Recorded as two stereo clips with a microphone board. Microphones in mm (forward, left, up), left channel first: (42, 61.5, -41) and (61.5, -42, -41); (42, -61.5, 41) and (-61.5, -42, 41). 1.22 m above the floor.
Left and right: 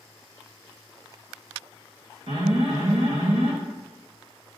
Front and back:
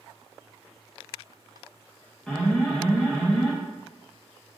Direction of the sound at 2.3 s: 95° right.